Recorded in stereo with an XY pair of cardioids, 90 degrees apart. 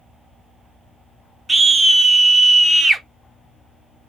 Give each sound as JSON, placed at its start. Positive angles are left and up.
{"t": 1.5, "sound": "a scream", "azimuth_deg": -35, "distance_m": 0.8}